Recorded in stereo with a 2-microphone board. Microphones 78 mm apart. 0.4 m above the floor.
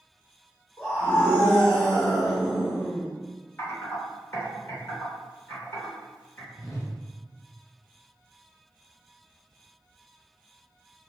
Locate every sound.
0.8 s a scream: 30° left (ahead or behind), 0.9 m; by 3.1 s 15° right (ahead or behind), 1.1 m
3.6 s typing on a keyboard: 30° left (ahead or behind), 1.0 m
6.5 s a whoosh: 45° left (ahead or behind), 0.7 m